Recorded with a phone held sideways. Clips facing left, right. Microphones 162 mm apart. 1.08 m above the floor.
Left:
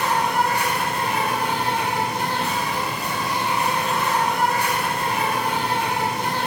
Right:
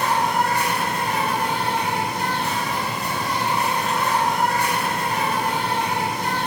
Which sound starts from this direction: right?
An insect, at 0.0 s.